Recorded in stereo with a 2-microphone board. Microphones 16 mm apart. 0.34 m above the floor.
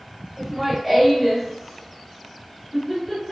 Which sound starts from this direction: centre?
Laughter, at 0.4 s.